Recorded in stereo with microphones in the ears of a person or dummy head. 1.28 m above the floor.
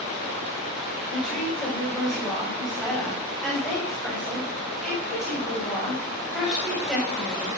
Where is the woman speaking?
Centre (ahead or behind), 7 m.